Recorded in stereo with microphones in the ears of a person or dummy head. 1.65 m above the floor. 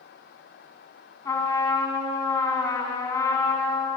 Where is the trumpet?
10° left (ahead or behind), 2.5 m.